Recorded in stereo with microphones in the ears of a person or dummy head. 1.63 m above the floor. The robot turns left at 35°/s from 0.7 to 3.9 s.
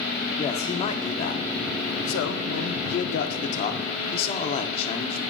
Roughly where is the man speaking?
Behind left.